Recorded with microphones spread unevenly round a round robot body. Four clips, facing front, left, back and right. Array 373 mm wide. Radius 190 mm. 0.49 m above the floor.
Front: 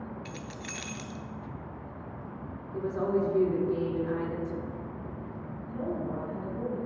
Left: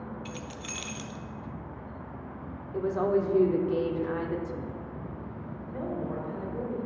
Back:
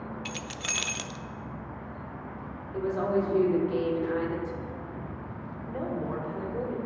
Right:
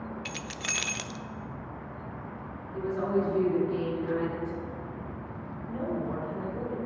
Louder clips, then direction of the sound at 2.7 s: Left 2 dB, back 1 dB; 95° left.